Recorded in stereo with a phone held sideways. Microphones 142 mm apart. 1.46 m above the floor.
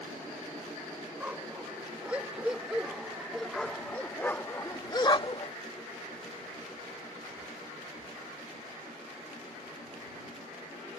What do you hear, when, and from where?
1.2 s a dog barking: 10° right (ahead or behind); by 5.5 s 40° left (ahead or behind)